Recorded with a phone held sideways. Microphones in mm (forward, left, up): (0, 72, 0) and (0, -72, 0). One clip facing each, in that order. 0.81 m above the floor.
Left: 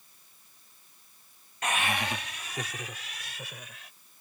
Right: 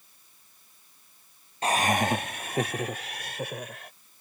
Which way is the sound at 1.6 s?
30° right (ahead or behind).